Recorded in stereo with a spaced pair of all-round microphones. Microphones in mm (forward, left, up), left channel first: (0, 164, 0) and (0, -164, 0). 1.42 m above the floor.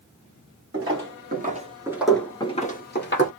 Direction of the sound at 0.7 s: 45° right (ahead or behind).